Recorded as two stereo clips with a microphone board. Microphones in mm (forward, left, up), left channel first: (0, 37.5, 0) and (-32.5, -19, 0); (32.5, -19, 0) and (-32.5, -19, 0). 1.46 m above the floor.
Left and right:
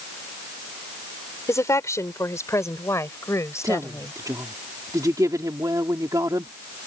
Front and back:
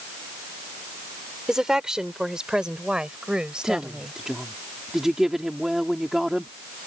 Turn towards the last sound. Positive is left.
turn(degrees=-95)